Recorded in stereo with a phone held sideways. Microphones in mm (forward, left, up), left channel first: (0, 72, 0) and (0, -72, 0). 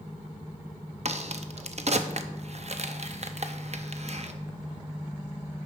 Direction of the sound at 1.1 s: 50° right (ahead or behind).